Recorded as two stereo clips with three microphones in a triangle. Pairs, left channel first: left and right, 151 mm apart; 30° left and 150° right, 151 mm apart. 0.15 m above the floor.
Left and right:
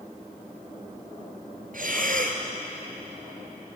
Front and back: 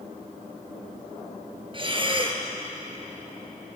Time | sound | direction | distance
1.7 | breathing | 100° right | 1.9 m